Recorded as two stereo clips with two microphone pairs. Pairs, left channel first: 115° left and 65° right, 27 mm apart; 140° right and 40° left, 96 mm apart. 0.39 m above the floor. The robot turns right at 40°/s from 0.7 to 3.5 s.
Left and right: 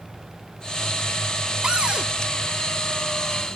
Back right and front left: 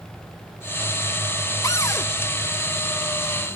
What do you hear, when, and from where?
1.6 s a cupboard door: 100° right; by 2.1 s 80° right